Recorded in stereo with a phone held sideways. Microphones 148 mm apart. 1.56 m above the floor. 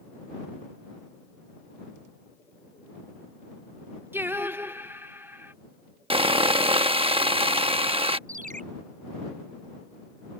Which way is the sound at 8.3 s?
65° right (ahead or behind).